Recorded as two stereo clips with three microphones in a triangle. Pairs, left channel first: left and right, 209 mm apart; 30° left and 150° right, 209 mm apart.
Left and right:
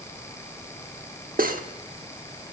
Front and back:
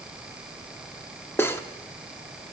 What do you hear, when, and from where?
1.4 s cutlery clinking: 50° right, 0.9 m